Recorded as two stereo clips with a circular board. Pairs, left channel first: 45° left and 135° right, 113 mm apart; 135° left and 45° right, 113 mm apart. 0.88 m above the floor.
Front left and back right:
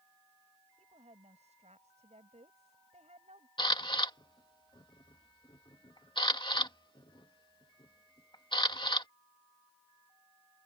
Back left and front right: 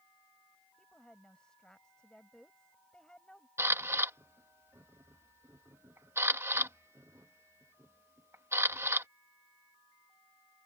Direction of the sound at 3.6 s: 15° left.